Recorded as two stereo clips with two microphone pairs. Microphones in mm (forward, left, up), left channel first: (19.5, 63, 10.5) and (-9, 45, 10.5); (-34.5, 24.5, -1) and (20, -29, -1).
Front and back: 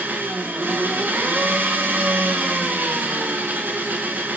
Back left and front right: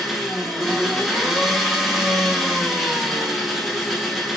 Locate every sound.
0.0 s an engine running: 130° right, 2.0 m